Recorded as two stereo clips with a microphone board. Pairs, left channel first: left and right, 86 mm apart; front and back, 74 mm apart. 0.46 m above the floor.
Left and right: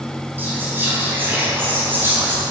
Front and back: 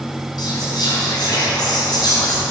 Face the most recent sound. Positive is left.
turn(degrees=-25)